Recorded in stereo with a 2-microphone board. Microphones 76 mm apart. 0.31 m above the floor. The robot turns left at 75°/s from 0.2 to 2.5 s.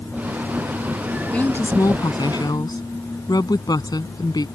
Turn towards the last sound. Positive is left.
turn(degrees=75)